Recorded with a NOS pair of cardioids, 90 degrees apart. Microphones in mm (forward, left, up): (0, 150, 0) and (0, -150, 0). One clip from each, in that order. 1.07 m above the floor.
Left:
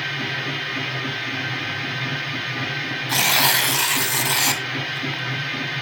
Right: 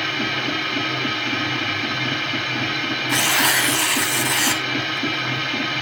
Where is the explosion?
I don't hear an explosion.